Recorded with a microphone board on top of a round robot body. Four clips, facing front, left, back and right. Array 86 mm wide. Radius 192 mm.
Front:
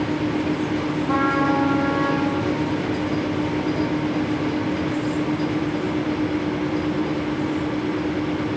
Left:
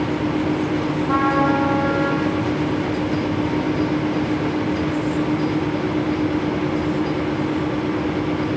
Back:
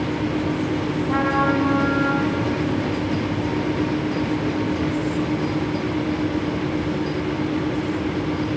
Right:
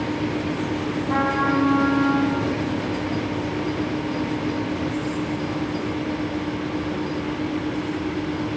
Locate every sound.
1.0 s a trumpet: 55° left, 8 m